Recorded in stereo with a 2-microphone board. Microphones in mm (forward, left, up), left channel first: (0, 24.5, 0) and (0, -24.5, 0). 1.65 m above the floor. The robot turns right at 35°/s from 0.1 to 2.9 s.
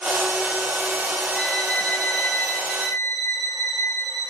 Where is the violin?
15° left, 5 m; by 4.3 s 70° left, 5 m.